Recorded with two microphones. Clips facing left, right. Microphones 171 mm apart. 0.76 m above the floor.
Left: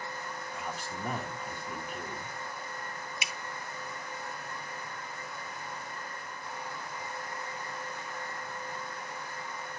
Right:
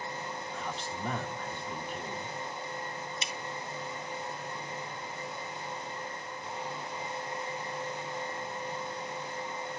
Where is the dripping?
10° left (ahead or behind), 0.6 m.